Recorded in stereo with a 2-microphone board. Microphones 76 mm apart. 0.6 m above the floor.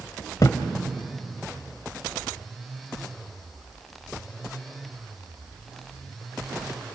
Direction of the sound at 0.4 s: 50° left (ahead or behind).